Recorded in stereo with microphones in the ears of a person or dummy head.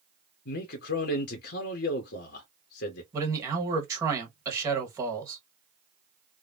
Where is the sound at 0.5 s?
50° left (ahead or behind), 0.7 m.